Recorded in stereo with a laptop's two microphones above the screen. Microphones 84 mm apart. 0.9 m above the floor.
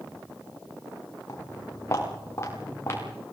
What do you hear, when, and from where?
1.3 s footsteps: 40° left (ahead or behind), 7.5 m; by 3.1 s 30° left (ahead or behind), 8 m